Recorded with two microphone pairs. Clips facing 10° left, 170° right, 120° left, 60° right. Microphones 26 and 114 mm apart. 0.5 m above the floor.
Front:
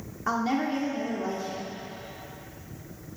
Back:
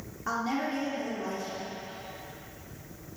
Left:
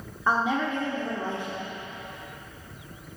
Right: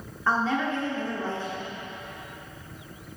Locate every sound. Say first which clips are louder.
0.3 s a woman speaking: front 4 dB, even; 65° left, 1.1 m